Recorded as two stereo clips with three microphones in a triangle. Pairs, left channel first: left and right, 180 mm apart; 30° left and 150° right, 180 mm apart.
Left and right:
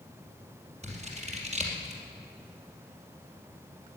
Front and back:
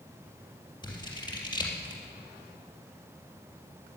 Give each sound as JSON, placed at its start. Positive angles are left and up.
{"t": 0.8, "sound": "scissors", "azimuth_deg": -35, "distance_m": 3.5}